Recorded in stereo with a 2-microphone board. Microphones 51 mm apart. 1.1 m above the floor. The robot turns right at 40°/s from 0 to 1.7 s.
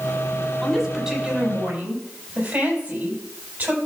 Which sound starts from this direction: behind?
A woman speaking, at 0.6 s.